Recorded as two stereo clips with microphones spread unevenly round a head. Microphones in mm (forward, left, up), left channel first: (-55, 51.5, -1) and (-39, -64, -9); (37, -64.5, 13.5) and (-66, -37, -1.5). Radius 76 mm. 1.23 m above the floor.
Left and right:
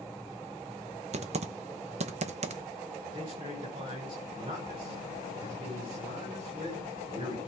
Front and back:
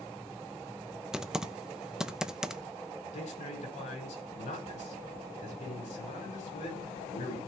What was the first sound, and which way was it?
Typing on a keyboard, 110° right.